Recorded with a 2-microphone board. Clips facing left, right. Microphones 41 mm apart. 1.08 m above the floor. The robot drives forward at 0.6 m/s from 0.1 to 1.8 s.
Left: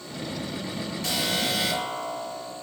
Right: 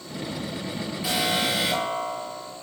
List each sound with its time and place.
1.0 s an alarm: 15° right (ahead or behind), 7.5 m